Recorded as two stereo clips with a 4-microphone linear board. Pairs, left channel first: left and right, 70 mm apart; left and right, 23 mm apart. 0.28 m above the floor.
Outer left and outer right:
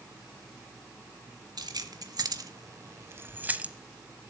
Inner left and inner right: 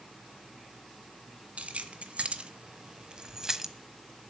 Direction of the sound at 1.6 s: 70° right (ahead or behind).